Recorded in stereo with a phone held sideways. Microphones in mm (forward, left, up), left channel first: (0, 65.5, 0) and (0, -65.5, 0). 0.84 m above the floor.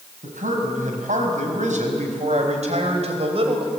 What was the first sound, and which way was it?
A man speaking, 85° right.